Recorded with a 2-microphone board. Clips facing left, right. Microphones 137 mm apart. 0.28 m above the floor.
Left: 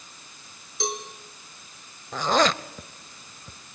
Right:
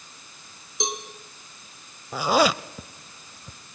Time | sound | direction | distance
0.8 | a cowbell | 20° right (ahead or behind) | 2.5 m
2.1 | a zipper | 10° right (ahead or behind) | 0.7 m